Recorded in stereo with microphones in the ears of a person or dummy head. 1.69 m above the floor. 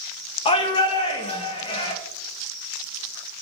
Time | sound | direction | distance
0.5 | a shout | 30° left (ahead or behind) | 0.7 m